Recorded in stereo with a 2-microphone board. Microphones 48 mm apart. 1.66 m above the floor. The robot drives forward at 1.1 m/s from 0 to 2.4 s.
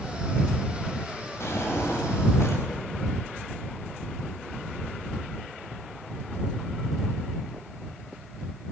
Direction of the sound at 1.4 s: 70° left (ahead or behind).